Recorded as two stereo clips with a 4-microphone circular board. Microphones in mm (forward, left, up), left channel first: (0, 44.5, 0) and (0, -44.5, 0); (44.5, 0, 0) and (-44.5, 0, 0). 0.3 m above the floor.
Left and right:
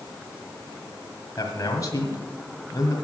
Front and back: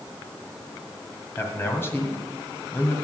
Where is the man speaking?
55° left, 1.7 m.